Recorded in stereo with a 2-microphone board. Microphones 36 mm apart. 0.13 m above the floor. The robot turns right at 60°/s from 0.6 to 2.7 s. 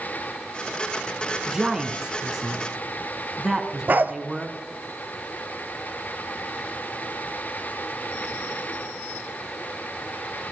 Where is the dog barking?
55° right (ahead or behind), 0.6 m.